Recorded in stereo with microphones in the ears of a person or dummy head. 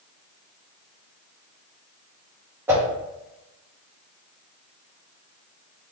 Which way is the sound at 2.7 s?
10° right (ahead or behind).